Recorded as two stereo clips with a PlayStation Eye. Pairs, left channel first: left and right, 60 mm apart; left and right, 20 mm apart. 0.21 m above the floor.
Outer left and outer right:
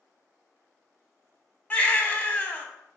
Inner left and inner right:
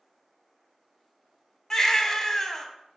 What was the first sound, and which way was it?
A baby crying, 25° left (ahead or behind).